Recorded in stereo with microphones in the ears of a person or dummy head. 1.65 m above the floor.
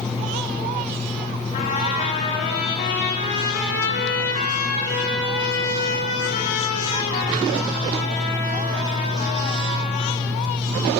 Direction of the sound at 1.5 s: 35° left (ahead or behind).